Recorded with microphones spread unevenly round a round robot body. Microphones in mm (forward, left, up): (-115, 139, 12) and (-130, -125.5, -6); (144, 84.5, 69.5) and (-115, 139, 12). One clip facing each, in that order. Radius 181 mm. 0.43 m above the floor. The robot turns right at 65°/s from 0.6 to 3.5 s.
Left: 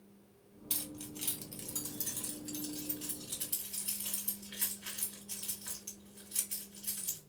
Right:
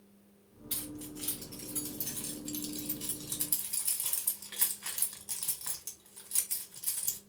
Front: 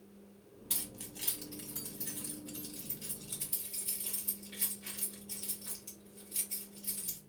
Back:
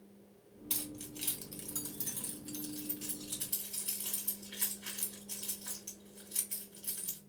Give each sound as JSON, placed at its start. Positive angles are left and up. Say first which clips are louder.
{"t": 0.7, "sound": "keys jangling", "louder": "right 3 dB, back 5 dB", "azimuth_deg": 65, "distance_m": 2.0}